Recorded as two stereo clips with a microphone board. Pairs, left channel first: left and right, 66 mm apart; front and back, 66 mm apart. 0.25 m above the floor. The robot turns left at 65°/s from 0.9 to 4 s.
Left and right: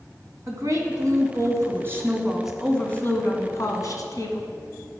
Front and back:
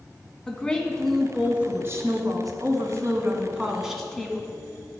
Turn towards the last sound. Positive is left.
turn(degrees=85)